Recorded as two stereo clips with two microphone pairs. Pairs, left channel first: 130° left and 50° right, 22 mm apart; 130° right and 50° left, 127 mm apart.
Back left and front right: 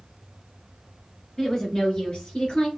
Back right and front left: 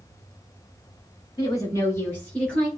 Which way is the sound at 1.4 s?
175° right.